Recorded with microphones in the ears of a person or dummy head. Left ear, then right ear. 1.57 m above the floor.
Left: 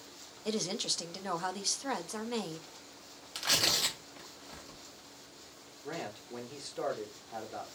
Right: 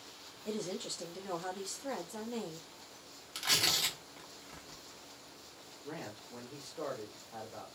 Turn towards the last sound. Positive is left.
turn(degrees=50)  # may be behind; listen again after turning